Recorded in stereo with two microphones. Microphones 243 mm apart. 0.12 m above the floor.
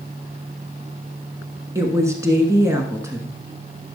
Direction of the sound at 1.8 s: 10° right (ahead or behind).